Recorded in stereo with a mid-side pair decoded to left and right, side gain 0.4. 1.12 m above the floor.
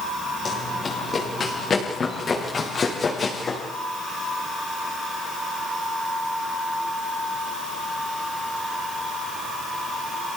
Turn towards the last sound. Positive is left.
turn(degrees=40)